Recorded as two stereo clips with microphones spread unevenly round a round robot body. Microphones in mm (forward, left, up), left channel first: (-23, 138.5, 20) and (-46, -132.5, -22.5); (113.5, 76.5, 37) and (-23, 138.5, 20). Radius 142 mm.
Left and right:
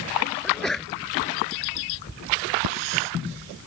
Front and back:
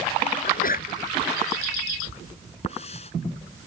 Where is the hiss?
90° right.